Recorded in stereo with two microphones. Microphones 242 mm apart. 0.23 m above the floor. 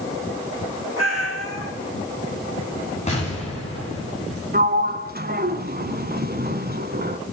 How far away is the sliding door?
About 0.9 m.